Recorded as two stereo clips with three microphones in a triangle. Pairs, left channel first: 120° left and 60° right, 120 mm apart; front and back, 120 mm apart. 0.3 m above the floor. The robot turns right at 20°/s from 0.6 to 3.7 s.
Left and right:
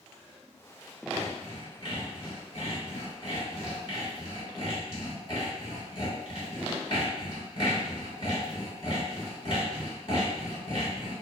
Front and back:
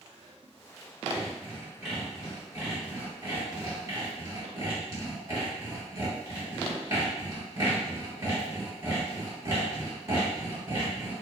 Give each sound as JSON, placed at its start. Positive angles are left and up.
{"t": 1.1, "sound": "sawing", "azimuth_deg": 85, "distance_m": 1.6}